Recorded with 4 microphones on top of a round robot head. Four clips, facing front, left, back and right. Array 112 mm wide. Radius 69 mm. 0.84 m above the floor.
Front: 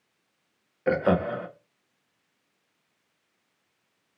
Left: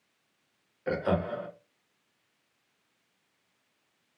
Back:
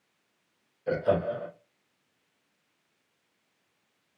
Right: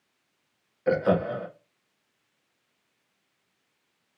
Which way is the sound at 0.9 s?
20° right.